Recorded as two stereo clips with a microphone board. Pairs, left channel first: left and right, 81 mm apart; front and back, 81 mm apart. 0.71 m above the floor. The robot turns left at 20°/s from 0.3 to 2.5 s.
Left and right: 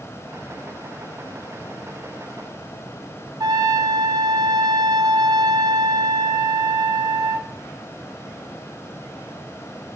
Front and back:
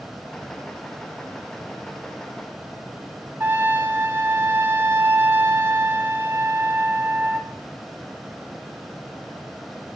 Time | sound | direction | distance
3.4 | a trumpet | 120° right | 0.9 m